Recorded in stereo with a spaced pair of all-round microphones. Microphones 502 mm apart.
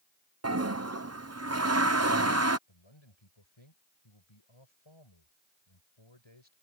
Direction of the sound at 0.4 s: 30° right (ahead or behind).